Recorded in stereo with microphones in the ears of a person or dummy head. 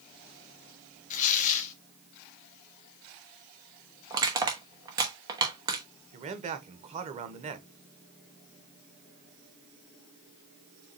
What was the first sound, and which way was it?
Tearing paper, 40° left (ahead or behind).